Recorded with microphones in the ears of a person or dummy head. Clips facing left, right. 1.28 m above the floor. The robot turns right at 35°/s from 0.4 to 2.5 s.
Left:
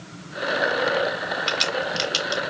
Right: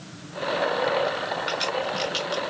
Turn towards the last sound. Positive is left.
turn(degrees=80)